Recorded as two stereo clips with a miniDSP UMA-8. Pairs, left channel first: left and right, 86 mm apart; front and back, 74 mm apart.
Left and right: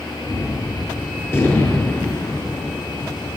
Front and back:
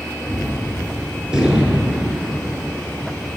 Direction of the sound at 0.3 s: 115° left.